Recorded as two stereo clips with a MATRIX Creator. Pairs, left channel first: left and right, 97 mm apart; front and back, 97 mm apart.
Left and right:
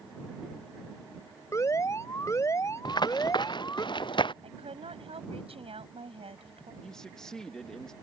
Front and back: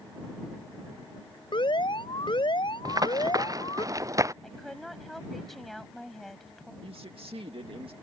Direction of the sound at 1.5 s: 30° left.